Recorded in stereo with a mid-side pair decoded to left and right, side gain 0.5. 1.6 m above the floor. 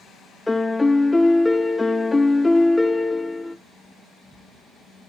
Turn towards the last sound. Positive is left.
turn(degrees=10)